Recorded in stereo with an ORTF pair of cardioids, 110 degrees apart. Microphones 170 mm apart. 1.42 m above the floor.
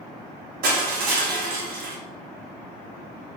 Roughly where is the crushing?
Ahead right.